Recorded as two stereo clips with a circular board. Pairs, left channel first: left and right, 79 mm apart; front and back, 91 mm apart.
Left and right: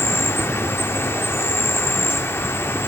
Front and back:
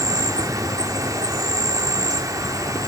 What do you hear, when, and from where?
0.0 s an insect: 140° left, 1.0 m